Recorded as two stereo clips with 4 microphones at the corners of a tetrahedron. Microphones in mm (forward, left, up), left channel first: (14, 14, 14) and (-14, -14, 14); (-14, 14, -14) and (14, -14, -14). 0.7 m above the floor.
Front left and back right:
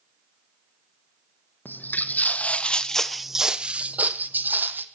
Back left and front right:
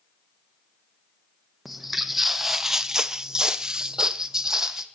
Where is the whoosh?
No whoosh in this recording.